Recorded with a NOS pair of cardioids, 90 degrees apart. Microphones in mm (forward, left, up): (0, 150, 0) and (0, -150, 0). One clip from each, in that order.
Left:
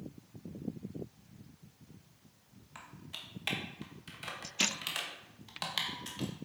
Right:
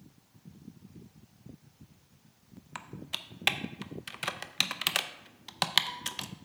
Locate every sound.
2.8 s typing on a keyboard: 45° right, 0.6 m